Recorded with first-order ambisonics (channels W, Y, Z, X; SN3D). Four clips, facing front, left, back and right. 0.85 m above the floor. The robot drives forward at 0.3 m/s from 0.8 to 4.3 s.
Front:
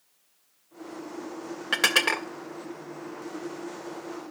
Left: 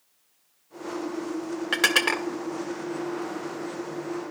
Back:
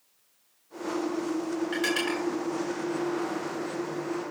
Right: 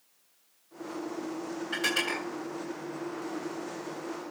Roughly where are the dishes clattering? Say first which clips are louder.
Left 7 dB, front 8 dB; ahead left.